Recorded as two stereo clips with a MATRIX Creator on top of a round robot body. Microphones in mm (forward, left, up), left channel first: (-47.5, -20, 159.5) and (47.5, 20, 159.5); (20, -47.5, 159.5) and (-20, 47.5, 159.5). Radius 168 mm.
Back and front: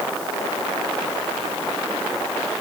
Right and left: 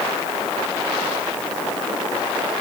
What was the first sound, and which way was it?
Only background noise.